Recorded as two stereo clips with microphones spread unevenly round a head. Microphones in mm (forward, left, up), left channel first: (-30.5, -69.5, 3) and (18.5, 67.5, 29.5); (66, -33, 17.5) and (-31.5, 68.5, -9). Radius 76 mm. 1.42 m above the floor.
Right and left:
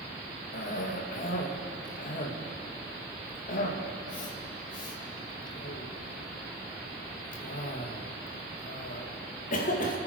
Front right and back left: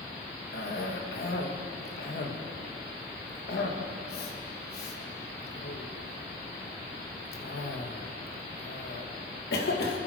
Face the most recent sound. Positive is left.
turn(degrees=-80)